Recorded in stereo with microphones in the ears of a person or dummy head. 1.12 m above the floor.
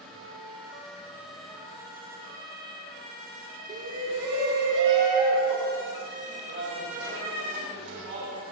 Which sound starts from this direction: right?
A shout, at 3.7 s.